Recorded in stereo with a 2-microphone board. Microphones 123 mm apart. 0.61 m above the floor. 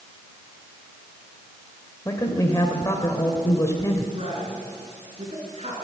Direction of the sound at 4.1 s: 55° right (ahead or behind).